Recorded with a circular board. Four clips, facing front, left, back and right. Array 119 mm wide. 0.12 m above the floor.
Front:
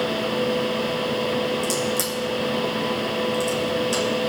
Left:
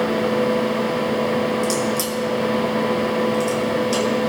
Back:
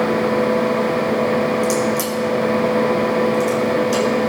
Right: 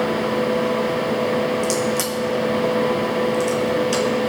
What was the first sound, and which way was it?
A crack, 80° right.